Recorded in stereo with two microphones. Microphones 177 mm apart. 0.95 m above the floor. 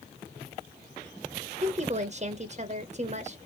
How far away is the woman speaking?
About 0.8 m.